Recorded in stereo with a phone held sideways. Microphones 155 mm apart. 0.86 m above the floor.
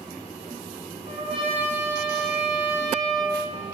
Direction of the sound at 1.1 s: 40° right (ahead or behind).